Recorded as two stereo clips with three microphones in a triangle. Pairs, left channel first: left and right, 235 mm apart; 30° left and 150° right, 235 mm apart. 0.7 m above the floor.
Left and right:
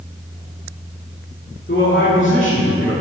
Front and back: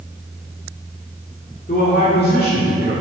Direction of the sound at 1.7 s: 70° left.